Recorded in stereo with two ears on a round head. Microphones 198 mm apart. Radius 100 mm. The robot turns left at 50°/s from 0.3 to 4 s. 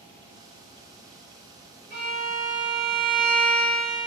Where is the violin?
115° right, 1.8 m; by 4.1 s 140° left, 1.8 m.